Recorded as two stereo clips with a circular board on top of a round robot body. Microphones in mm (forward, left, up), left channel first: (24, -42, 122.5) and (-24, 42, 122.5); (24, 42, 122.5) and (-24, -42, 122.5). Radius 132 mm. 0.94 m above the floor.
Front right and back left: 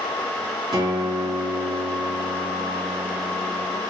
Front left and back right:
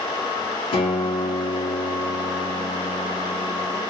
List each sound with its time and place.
0.7 s a guitar: 75° left, 6 m